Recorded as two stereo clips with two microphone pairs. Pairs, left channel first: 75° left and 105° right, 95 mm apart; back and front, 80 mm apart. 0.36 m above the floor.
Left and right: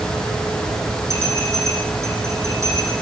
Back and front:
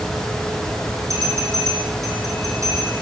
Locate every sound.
1.1 s a bell: 50° right, 9.5 m